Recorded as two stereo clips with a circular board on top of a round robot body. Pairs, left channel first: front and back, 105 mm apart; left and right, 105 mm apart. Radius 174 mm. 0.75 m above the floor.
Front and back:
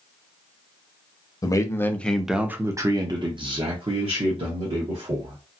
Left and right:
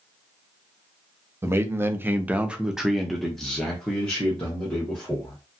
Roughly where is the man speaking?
Ahead right.